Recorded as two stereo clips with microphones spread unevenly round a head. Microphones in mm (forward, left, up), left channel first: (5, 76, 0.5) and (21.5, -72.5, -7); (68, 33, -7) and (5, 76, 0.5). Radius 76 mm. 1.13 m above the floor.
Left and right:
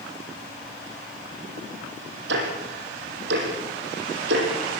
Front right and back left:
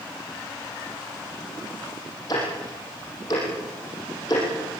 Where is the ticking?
100° right, 6.5 m.